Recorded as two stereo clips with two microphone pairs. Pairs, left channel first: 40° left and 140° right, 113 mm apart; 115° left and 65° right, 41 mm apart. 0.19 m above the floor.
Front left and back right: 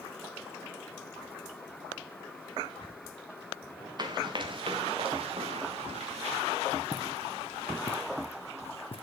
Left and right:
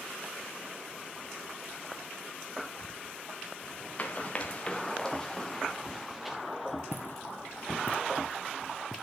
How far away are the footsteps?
About 1.2 m.